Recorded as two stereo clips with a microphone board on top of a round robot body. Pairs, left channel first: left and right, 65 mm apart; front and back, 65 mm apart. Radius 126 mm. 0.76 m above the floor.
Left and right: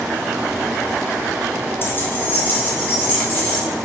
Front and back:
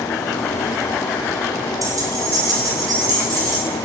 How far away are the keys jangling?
About 1.1 m.